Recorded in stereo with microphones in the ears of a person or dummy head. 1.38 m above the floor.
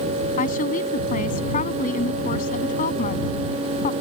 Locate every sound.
0.4 s a woman speaking: 45° left (ahead or behind)